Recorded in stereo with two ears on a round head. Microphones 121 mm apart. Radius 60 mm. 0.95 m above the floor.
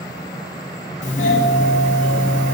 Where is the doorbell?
55° left (ahead or behind), 1.6 m.